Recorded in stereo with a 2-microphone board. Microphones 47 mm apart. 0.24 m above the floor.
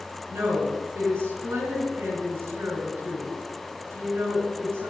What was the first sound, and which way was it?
A woman speaking, 65° right (ahead or behind).